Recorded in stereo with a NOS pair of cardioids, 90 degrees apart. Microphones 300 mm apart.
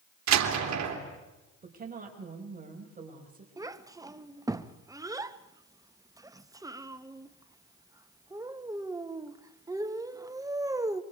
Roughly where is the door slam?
Ahead right.